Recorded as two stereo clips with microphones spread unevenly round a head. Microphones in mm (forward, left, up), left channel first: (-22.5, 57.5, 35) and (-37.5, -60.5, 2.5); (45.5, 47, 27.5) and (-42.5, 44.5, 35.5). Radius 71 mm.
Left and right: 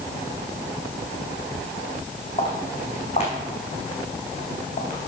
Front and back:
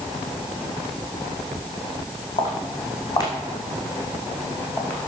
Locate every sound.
2.4 s footsteps: 35° left, 3.5 m; by 5.1 s 70° left, 3.5 m